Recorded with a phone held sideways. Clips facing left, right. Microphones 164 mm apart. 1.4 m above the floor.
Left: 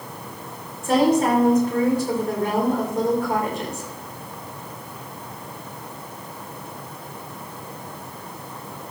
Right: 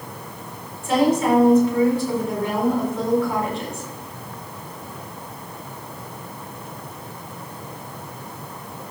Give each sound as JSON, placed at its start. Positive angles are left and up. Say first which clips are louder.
{"t": 0.8, "sound": "a woman speaking", "louder": "left 1 dB", "side_deg": 45, "distance_m": 4.5}